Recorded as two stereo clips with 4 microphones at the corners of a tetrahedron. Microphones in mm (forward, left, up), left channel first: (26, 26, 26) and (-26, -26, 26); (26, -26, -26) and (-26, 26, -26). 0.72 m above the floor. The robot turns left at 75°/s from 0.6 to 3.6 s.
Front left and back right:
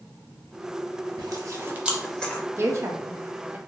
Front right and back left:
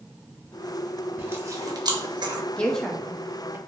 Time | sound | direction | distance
1.2 | chewing | 160° right | 0.6 m
2.6 | a woman speaking | 110° right | 0.6 m